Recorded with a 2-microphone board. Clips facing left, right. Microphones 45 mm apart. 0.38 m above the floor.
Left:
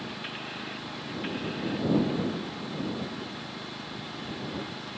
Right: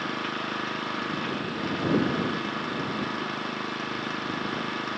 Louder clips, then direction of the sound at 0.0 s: Right 7 dB; 70° right (ahead or behind).